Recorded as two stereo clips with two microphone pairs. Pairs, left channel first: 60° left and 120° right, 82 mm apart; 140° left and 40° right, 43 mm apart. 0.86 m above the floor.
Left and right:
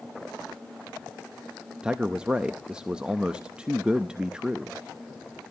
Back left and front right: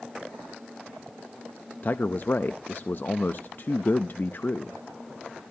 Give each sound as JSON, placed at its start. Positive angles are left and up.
{"t": 1.8, "sound": "a man speaking", "azimuth_deg": 165, "distance_m": 0.6}